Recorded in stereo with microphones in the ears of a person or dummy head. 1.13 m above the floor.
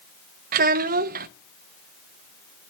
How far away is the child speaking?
About 0.6 m.